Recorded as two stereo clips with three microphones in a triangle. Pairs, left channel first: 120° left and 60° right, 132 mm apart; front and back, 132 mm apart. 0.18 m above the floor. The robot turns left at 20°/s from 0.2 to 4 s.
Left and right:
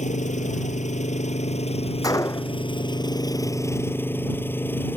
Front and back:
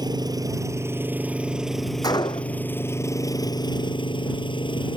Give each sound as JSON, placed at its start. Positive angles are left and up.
{"t": 0.0, "sound": "an engine running", "azimuth_deg": 125}
{"t": 2.0, "sound": "a gunshot", "azimuth_deg": 60}